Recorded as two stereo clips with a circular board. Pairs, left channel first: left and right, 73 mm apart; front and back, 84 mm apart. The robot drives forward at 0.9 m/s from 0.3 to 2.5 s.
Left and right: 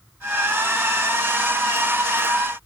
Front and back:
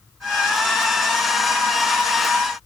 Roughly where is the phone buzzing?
No phone buzzing in this recording.